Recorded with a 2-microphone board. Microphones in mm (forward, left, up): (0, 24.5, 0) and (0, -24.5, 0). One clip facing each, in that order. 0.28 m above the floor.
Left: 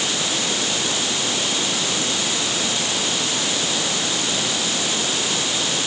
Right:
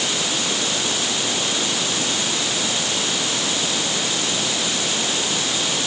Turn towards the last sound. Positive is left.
No sound to turn to.